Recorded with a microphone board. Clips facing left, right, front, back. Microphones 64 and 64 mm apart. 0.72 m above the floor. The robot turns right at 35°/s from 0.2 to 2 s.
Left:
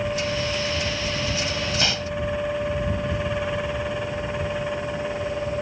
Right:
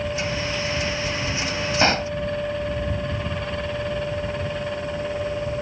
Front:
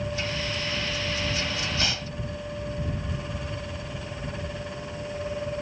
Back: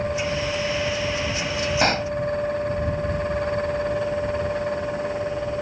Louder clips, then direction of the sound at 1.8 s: Right 6 dB, back 10 dB; 140° right.